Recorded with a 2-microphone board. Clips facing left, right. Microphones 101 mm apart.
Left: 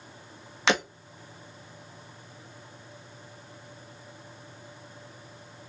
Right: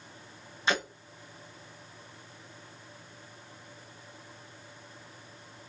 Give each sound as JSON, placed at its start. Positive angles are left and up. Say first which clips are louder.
{"t": 0.7, "sound": "breaking glass", "louder": "left 4 dB", "side_deg": 75, "distance_m": 1.4}